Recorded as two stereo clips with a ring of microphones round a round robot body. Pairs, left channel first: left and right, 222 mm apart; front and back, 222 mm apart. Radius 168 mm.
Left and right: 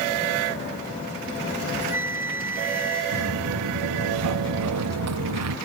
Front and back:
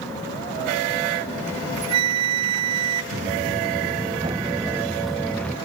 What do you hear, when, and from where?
1.5 s a flute: 175° right
3.1 s footsteps: 120° right; by 5.6 s 85° right